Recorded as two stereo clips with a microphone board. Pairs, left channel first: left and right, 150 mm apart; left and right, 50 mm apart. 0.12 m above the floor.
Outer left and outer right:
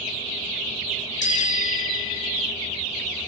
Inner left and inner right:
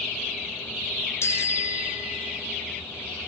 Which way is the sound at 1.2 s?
65° left (ahead or behind).